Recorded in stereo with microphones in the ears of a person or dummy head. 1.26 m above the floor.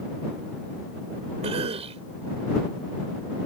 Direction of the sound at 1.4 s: 35° right (ahead or behind).